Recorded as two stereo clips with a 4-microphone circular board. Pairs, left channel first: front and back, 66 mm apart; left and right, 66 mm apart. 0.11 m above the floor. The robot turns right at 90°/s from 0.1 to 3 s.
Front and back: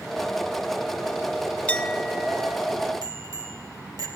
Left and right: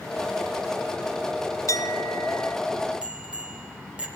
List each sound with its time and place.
1.7 s a clink: 60° left, 1.5 m; by 2.6 s 145° left, 1.5 m
3.0 s a bicycle bell: 165° right, 3 m